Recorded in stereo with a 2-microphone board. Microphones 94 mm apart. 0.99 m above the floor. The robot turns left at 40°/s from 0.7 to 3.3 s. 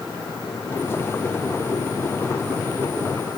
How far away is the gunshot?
I don't hear a gunshot.